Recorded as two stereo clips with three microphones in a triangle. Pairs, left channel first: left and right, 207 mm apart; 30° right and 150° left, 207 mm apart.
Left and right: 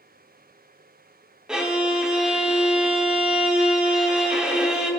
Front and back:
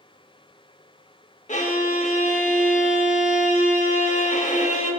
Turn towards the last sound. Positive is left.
turn(degrees=-5)